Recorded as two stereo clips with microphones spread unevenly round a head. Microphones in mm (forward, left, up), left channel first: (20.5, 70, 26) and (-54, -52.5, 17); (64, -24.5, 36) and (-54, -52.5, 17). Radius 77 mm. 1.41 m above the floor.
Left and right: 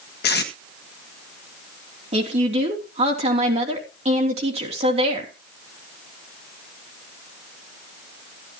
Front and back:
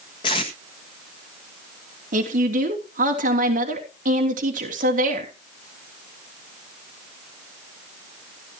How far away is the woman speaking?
About 3 m.